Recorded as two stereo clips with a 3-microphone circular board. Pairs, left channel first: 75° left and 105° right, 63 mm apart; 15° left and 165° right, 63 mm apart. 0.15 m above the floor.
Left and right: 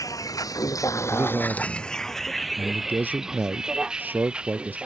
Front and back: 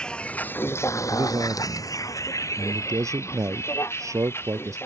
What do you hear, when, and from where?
0.0 s a vehicle: 90° left; by 4.9 s 35° right
1.1 s a man speaking: 160° right